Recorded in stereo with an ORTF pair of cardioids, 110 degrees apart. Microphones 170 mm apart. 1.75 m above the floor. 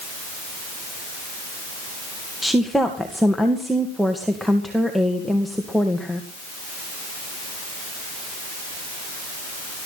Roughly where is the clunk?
No clunk in this recording.